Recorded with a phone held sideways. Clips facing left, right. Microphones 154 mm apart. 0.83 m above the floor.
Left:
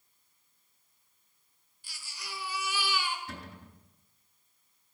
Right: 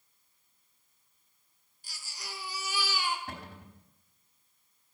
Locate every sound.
1.8 s a baby crying: 40° right (ahead or behind), 1.6 m
3.3 s a cupboard door: 60° right (ahead or behind), 4 m